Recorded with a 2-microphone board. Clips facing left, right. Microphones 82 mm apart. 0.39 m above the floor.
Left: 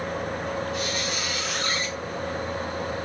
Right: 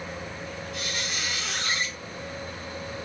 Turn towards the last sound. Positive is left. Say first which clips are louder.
# left 5 dB
turn(degrees=40)  # may be behind; listen again after turning